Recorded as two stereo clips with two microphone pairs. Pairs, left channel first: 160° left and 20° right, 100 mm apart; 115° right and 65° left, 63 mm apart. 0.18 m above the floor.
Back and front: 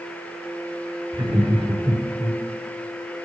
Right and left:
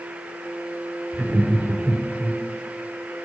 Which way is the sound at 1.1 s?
15° right.